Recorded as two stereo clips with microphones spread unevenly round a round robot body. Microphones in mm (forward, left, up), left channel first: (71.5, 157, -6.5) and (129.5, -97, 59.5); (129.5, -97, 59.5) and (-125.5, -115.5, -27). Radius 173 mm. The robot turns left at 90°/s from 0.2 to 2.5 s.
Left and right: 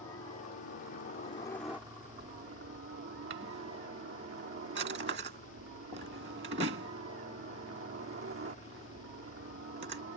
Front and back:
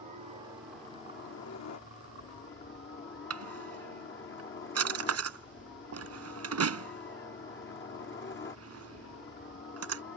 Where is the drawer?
135° right.